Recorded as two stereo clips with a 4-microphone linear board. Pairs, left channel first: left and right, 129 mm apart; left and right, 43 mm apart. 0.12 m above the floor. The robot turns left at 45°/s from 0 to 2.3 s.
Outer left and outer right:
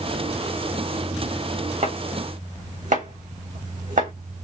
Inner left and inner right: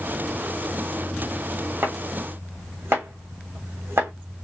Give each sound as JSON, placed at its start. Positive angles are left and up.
{"t": 1.8, "sound": "chopping", "side_deg": -60, "distance_m": 3.0}